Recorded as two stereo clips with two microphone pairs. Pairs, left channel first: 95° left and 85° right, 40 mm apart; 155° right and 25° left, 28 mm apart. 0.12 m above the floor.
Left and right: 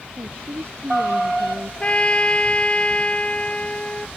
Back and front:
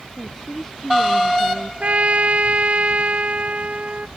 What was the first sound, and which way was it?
A woman speaking, 85° right.